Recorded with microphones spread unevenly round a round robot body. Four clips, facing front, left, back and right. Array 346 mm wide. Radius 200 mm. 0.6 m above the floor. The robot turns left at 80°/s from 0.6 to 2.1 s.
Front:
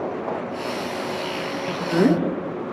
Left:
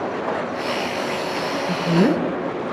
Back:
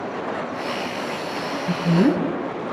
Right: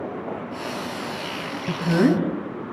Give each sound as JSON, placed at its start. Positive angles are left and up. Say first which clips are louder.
{"t": 1.7, "sound": "a woman speaking", "louder": "even, even", "azimuth_deg": -120, "distance_m": 3.5}